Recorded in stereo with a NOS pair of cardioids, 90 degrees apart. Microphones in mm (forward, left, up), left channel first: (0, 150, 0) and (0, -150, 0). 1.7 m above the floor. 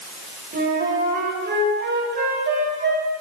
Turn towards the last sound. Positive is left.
turn(degrees=-40)